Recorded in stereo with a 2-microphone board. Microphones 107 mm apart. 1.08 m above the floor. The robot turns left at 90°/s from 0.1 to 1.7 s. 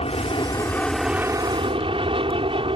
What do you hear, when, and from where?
0.0 s an aircraft: 80° left; by 2.8 s 65° right